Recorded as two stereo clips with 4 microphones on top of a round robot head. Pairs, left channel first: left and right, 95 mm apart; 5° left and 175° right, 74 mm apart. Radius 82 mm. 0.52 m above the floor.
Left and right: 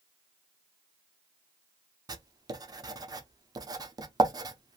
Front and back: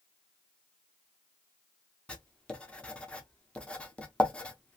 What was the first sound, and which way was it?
Writing, 65° right.